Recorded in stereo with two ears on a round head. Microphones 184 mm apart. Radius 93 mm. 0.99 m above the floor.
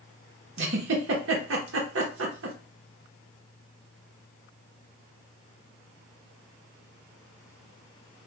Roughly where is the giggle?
Right.